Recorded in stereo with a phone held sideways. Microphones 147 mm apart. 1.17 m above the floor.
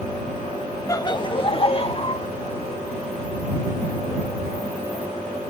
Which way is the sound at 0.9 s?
20° left (ahead or behind).